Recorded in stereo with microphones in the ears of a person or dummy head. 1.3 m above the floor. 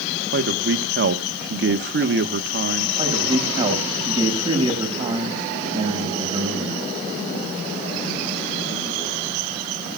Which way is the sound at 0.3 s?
65° right (ahead or behind).